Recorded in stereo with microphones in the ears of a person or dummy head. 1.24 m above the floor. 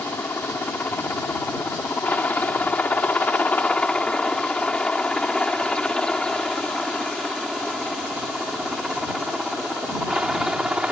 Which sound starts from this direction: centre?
A helicopter, at 0.0 s.